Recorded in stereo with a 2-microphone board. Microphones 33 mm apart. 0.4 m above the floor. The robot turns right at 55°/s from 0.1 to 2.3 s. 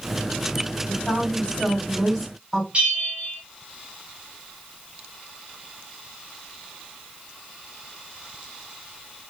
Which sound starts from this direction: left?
A woman speaking, at 0.9 s.